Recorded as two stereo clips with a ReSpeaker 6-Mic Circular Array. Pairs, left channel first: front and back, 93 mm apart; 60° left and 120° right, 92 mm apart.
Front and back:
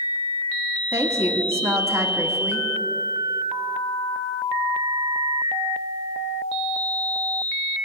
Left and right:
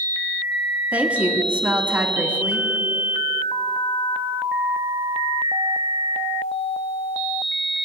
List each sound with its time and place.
0.9 s a woman speaking: 175° right, 1.4 m